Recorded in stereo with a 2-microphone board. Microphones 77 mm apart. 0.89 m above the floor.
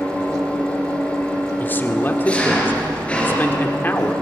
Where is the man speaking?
25° left (ahead or behind), 1.9 m.